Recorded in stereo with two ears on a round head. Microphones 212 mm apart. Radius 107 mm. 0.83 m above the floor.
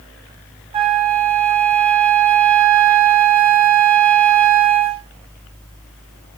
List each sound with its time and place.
0.7 s a flute: 20° right (ahead or behind), 0.7 m